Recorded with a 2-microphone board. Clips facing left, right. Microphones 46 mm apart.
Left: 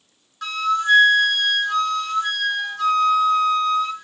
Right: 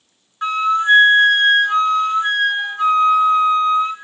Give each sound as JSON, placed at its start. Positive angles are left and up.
{"t": 0.4, "sound": "a flute", "side_deg": -25, "distance_m": 0.7}